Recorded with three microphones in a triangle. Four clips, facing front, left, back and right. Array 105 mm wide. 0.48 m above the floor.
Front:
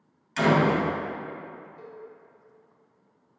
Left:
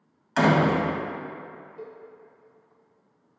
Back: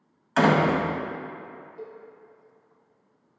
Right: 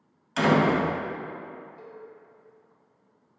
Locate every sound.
0.4 s a door slam: 155° left, 1.7 m
1.8 s a cowbell: 130° left, 2 m